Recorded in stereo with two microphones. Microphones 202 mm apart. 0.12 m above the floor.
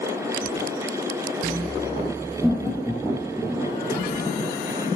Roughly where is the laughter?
Centre.